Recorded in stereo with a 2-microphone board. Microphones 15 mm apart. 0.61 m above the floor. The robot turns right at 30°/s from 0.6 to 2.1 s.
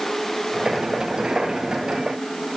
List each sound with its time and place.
Only background noise.